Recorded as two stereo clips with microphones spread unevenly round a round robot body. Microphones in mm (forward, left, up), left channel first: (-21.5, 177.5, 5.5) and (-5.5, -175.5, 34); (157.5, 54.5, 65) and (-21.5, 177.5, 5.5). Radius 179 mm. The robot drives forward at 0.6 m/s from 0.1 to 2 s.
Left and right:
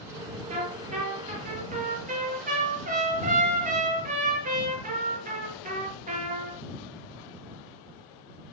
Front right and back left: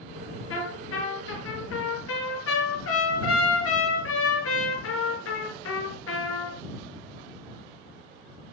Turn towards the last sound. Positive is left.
turn(degrees=-15)